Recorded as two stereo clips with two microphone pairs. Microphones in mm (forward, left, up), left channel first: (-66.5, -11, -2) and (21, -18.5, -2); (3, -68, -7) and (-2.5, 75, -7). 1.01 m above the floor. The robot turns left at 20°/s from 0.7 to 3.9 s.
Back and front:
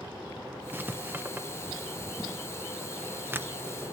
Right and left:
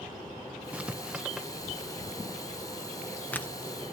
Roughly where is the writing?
Ahead left.